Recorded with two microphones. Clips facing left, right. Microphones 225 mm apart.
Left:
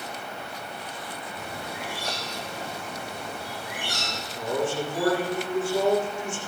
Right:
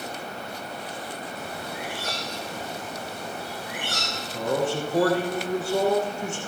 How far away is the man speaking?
About 6.5 m.